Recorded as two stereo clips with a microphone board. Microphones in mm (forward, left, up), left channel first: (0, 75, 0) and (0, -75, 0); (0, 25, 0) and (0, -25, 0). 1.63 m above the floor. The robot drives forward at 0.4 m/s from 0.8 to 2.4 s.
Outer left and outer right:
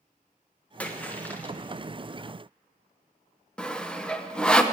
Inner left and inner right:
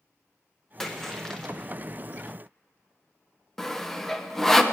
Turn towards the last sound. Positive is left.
turn(degrees=5)  # may be behind; listen again after turning